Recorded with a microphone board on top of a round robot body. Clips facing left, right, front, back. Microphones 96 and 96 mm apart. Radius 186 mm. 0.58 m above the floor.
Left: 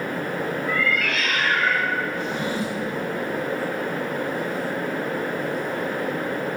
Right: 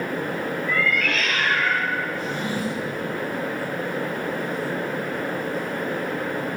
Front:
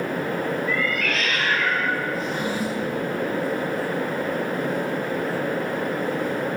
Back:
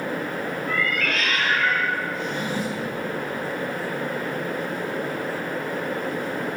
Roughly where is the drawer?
Left.